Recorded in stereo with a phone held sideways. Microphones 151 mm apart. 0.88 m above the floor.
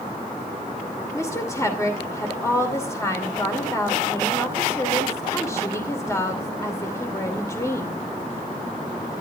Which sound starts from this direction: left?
A woman speaking, at 1.1 s.